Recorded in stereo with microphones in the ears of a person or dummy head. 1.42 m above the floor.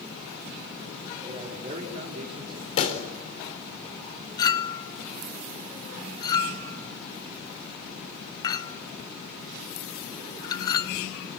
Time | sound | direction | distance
1.2 | a man speaking | 35° right (ahead or behind) | 4.5 m
2.8 | a pop | 45° left (ahead or behind) | 4 m
4.4 | a clink | 20° left (ahead or behind) | 0.5 m